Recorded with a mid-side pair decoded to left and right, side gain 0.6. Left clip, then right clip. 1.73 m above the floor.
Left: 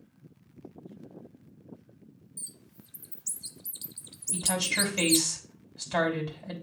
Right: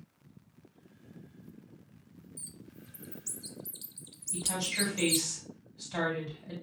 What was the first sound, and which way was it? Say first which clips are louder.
A bird: left 3 dB; 20° left.